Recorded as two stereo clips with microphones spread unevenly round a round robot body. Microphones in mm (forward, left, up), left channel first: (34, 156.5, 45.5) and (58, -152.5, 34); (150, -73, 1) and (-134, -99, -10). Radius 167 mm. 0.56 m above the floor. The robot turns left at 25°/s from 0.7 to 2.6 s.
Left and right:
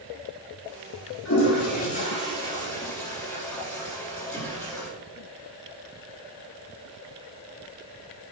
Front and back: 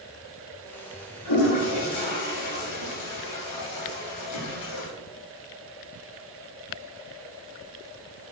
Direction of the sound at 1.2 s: 45° left.